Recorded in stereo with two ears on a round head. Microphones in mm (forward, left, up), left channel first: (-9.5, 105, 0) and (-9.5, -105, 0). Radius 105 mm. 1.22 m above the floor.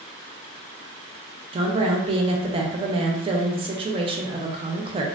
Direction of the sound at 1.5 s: 25° right (ahead or behind).